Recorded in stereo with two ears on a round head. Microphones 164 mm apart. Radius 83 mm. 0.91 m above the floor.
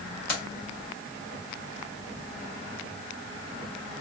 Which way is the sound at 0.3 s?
50° left (ahead or behind).